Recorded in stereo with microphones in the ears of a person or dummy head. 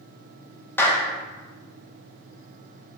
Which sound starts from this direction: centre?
A clap, at 0.8 s.